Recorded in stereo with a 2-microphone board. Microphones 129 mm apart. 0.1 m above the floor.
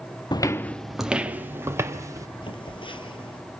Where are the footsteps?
35° left (ahead or behind), 0.7 m; by 2.3 s 25° right (ahead or behind), 2 m.